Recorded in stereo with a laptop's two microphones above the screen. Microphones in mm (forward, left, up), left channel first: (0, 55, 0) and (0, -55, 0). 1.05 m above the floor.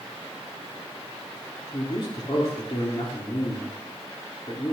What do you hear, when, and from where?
1.7 s a man speaking: 50° left (ahead or behind), 2.5 m